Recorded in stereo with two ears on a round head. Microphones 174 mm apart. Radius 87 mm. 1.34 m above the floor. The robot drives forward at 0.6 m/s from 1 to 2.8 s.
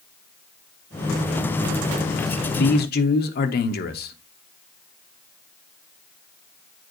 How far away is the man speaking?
About 1.0 m.